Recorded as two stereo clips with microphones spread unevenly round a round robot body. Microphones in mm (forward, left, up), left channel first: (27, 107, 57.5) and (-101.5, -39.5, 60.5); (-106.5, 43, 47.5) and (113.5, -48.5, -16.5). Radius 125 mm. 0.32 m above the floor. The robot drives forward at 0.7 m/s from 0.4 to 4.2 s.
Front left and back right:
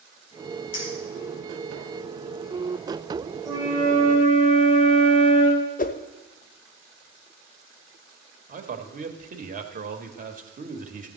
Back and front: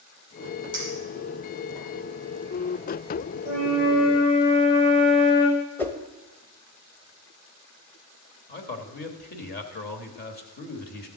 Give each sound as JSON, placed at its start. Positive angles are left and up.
{"t": 0.7, "sound": "a clink", "azimuth_deg": 60, "distance_m": 6.0}
{"t": 3.5, "sound": "a flute", "azimuth_deg": 155, "distance_m": 4.0}
{"t": 5.8, "sound": "a whoosh", "azimuth_deg": 60, "distance_m": 0.7}
{"t": 8.5, "sound": "a man speaking", "azimuth_deg": -150, "distance_m": 1.2}